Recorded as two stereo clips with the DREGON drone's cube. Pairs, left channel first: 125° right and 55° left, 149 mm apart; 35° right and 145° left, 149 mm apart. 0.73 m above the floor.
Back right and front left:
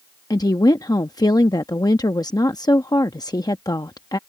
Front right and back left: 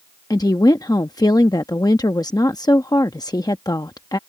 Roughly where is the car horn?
No car horn in this recording.